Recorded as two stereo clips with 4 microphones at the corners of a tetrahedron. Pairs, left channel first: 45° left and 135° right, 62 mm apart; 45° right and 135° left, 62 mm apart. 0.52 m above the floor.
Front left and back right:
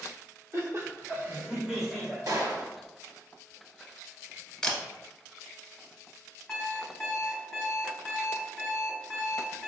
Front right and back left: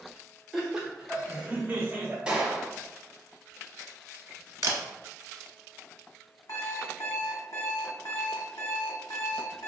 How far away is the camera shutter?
About 0.7 m.